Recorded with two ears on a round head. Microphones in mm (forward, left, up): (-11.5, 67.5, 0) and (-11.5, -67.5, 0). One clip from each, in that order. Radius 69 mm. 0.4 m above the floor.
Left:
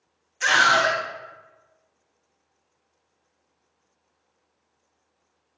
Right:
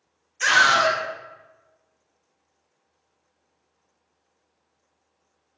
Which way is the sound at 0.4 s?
40° right (ahead or behind).